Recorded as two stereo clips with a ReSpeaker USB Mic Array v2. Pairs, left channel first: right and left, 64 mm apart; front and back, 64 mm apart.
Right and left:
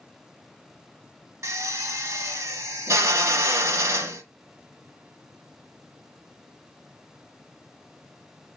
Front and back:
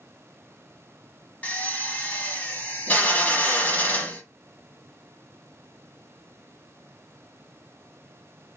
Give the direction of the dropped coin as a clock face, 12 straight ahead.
No dropped coin in this recording.